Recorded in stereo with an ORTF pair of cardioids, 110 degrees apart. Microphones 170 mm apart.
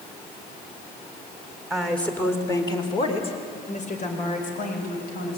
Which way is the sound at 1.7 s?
Straight ahead.